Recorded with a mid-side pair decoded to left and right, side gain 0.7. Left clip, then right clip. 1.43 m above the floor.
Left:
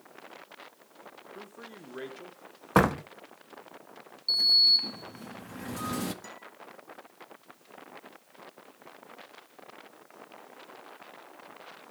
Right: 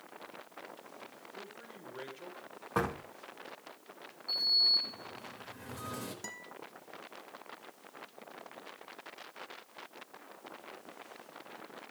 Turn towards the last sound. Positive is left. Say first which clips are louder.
# even
turn(degrees=-25)